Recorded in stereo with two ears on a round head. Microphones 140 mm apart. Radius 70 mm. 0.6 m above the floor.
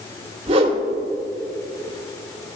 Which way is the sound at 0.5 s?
40° right (ahead or behind).